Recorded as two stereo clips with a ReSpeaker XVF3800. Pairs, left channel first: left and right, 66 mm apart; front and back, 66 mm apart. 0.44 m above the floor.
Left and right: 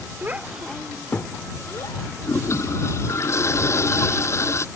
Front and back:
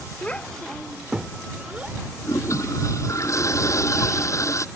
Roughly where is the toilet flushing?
Ahead left.